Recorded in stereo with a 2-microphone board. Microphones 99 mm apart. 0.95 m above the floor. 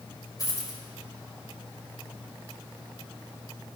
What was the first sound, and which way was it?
A dropped coin, 35° left (ahead or behind).